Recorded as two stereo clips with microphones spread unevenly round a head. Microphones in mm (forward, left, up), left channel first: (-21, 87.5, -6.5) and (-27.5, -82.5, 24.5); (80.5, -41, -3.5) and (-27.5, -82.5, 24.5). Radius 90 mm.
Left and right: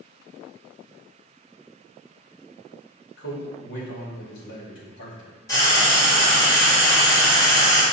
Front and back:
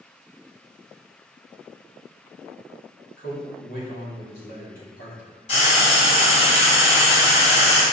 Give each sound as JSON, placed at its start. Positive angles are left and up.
{"t": 3.2, "sound": "a man speaking", "azimuth_deg": 55, "distance_m": 2.0}
{"t": 5.5, "sound": "frying", "azimuth_deg": 10, "distance_m": 2.0}